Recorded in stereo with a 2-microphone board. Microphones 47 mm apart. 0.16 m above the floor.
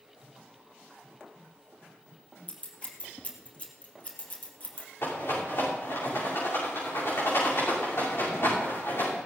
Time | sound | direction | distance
2.5 | scissors | 30° left (ahead or behind) | 3 m
5.0 | a rattle | 60° left (ahead or behind) | 8.5 m